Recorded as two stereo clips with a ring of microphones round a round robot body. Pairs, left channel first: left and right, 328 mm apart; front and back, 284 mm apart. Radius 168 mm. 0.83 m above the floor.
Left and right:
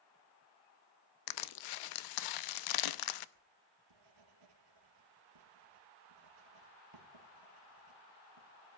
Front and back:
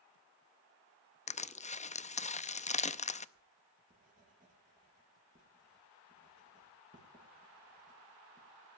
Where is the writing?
110° right, 3 m.